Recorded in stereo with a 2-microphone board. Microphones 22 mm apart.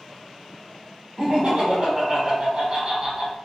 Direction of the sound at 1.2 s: 45° right (ahead or behind).